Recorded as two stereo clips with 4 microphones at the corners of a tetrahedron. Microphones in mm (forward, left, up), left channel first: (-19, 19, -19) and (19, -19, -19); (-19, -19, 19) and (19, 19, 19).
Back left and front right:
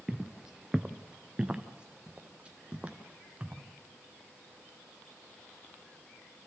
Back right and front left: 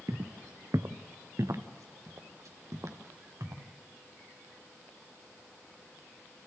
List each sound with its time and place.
0.1 s footsteps: 40° left, 0.9 m; by 3.6 s 20° left, 2.5 m